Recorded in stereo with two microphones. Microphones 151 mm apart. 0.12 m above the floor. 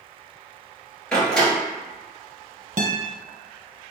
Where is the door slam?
5° left (ahead or behind), 1.7 m.